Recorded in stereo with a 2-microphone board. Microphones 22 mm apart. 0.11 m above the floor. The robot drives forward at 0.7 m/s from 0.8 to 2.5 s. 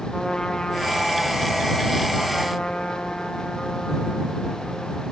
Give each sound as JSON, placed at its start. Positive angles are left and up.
{"t": 0.1, "sound": "a trumpet", "side_deg": 35, "distance_m": 4.0}